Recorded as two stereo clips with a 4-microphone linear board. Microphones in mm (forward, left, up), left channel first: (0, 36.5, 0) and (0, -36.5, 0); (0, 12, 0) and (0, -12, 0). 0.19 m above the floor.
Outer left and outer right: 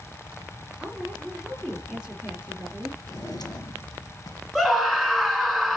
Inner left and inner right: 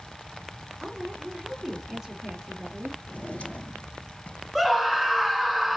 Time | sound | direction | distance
0.8 | a woman speaking | 15° right (ahead or behind) | 3.5 m
3.0 | a drawer | 65° left (ahead or behind) | 2 m
4.5 | a scream | 5° left (ahead or behind) | 1.9 m